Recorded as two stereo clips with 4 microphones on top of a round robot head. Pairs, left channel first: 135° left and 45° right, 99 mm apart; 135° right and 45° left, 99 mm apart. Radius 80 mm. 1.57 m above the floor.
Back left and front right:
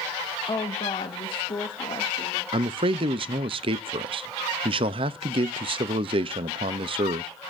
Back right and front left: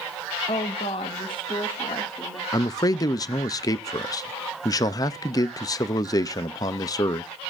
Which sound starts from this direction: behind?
A woman speaking, at 0.5 s.